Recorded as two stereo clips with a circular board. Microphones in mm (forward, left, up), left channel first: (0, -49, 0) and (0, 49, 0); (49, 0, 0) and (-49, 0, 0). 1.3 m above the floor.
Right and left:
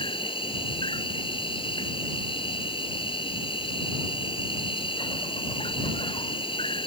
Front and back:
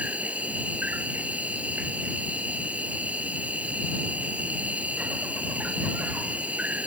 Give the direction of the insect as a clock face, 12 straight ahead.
4 o'clock.